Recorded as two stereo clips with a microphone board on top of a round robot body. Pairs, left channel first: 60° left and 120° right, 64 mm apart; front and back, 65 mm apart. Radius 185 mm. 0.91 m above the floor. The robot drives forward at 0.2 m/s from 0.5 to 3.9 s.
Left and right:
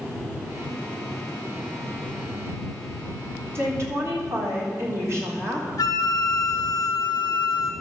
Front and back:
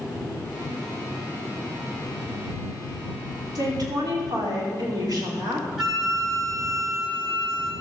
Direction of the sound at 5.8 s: 90° left.